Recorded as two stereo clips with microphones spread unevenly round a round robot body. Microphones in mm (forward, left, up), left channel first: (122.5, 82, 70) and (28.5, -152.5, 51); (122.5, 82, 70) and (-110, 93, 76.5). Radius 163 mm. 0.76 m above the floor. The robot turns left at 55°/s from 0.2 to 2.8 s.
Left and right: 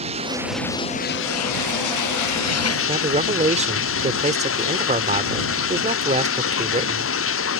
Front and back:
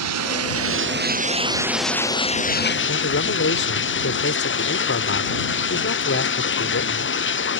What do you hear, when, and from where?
0.0 s running water: 175° left; by 7.6 s 35° left
2.9 s a man speaking: 50° right